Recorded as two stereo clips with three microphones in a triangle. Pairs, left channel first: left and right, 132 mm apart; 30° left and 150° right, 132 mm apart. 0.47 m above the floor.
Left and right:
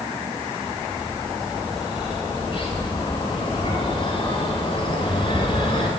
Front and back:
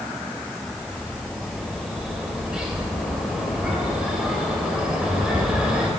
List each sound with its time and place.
0.7 s a bird: 130° left, 2 m